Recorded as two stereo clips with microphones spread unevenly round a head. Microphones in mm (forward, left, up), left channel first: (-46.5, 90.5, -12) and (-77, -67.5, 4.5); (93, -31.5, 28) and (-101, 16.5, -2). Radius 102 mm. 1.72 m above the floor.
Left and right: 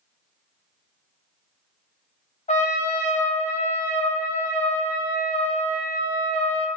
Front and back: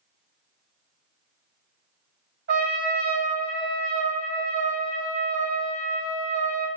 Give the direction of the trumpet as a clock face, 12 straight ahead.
8 o'clock.